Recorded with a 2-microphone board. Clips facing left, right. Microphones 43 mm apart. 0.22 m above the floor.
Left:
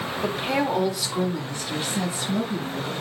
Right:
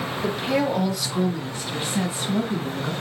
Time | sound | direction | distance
0.2 | a woman speaking | 25° left (ahead or behind) | 1.1 m